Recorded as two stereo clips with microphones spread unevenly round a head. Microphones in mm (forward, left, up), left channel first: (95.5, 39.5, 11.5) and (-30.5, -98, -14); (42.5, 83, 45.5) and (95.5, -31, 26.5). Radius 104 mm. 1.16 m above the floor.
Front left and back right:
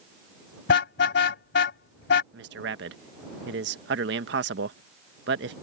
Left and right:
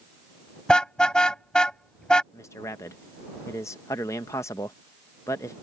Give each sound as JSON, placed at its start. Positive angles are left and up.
{"t": 0.7, "sound": "a car horn", "azimuth_deg": 35}
{"t": 2.3, "sound": "a man speaking", "azimuth_deg": -170}